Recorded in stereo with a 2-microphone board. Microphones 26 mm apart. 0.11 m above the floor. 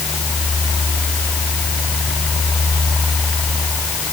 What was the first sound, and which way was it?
Only background noise.